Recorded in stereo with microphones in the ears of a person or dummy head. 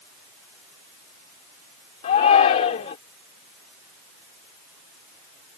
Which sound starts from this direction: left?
A shout, at 2.0 s.